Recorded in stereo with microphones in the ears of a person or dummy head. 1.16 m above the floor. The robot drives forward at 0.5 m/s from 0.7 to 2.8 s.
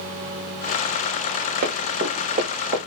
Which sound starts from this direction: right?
Running footsteps, at 1.6 s.